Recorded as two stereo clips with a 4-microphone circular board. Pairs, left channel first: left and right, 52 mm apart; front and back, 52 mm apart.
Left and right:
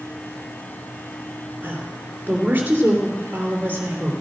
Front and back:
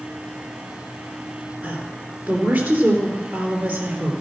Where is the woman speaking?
140° right, 3 m.